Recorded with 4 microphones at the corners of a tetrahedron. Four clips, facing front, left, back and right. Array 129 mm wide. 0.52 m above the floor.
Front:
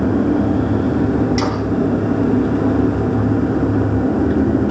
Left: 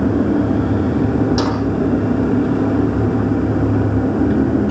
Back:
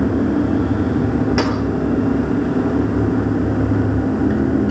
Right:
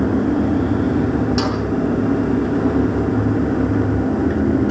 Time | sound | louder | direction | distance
1.4 | a snare drum | left 2 dB, back 1 dB | 160° left | 9 m